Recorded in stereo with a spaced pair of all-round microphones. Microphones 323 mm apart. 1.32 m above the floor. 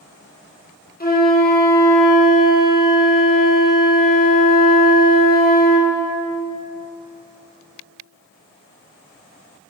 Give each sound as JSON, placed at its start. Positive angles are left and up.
{"t": 1.0, "sound": "a flute", "side_deg": 30, "distance_m": 1.1}